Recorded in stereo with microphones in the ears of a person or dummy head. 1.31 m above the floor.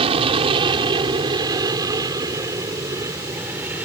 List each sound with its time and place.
0.0 s an aircraft: 30° right (ahead or behind); by 3.9 s 10° right (ahead or behind)